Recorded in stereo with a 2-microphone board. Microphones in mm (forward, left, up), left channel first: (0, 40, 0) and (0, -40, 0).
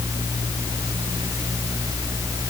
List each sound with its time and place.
Only background noise.